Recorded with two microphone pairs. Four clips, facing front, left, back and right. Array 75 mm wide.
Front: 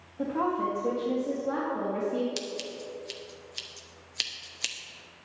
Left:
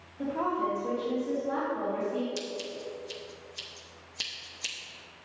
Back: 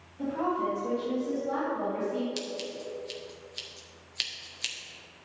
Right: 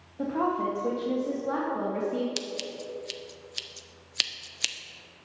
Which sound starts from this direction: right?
Scissors, at 2.4 s.